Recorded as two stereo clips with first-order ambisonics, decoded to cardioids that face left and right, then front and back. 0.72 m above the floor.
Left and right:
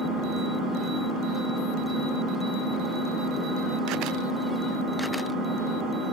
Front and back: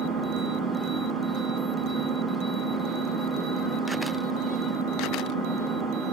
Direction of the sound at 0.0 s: 125° right.